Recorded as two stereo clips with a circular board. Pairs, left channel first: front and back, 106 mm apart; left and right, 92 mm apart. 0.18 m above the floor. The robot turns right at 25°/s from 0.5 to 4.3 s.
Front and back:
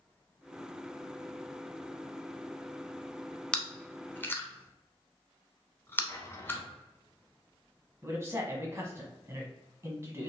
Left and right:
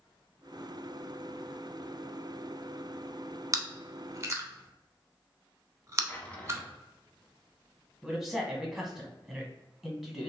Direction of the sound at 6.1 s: 30° left.